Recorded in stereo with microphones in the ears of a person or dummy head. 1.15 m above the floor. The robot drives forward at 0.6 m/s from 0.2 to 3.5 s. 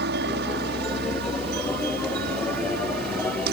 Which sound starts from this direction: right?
A helicopter, at 0.0 s.